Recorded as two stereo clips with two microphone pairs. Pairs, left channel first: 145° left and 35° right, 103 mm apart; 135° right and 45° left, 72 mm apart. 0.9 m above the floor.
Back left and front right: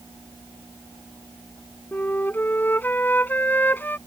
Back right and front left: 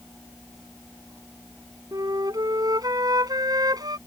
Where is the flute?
75° left.